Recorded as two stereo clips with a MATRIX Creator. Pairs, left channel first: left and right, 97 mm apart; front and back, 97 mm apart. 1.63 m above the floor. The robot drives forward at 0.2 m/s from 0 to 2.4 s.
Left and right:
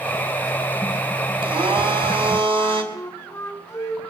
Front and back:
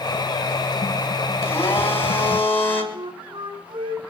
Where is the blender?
65° right, 4.5 m.